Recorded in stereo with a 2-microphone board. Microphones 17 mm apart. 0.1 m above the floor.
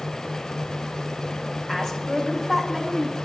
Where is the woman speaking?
25° left (ahead or behind), 6.5 m; by 3.1 s 20° left (ahead or behind), 7 m.